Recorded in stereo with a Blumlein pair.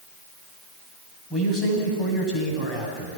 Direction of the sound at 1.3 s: 10° left.